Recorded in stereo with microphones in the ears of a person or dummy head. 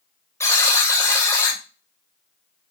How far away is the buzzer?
About 1.9 m.